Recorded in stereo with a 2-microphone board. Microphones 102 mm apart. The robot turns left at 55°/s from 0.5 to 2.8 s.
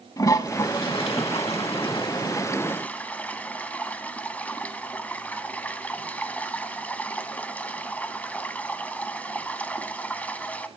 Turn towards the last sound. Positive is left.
turn(degrees=15)  # may be behind; listen again after turning